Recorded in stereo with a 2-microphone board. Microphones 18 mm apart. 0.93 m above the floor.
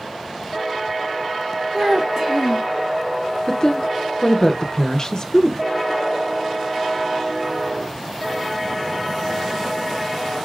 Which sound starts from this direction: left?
A woman speaking, at 3.5 s.